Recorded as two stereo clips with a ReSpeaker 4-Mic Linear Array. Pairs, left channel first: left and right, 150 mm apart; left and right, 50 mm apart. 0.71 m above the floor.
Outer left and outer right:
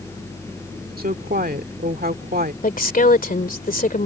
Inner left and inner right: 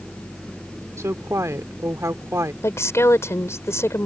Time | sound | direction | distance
1.0 | a woman speaking | 70° right (ahead or behind) | ?
2.6 | a woman speaking | 65° left (ahead or behind) | ?